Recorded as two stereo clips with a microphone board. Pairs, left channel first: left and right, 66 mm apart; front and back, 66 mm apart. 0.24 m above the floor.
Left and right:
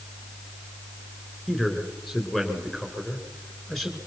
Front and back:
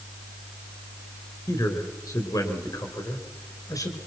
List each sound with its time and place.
1.5 s a man speaking: 5° left, 3.5 m